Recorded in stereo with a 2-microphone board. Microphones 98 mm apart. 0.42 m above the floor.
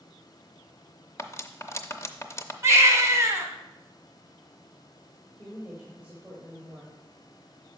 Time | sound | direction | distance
1.2 | cutlery clinking | 25° left (ahead or behind) | 0.6 m
2.6 | a baby crying | 30° right (ahead or behind) | 1.1 m
5.4 | a woman speaking | 15° right (ahead or behind) | 1.4 m